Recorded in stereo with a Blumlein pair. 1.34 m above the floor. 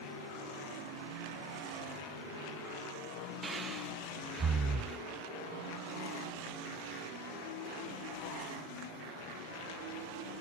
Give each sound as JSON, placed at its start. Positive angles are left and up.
{"t": 3.4, "sound": "breathing", "azimuth_deg": -20, "distance_m": 0.7}